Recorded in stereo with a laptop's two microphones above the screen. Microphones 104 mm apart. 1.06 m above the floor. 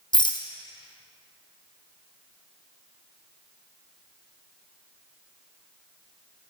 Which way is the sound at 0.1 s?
45° left (ahead or behind).